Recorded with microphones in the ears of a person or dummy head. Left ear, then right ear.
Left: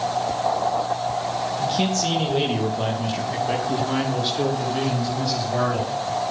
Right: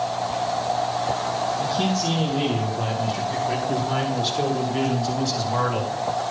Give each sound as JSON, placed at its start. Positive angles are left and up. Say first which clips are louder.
{"t": 1.6, "sound": "a man speaking", "louder": "left 1 dB", "side_deg": 65, "distance_m": 3.0}